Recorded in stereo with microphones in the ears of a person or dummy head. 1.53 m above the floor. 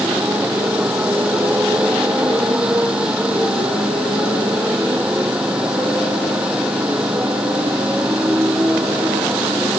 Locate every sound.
0.0 s a motorcycle: 10° right (ahead or behind)